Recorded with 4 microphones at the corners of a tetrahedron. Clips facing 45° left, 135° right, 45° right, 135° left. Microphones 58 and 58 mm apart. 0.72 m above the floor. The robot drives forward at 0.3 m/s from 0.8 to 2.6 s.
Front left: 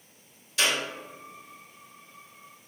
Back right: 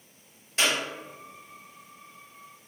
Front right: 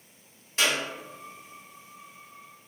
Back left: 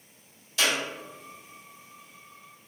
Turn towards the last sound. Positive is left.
turn(degrees=-105)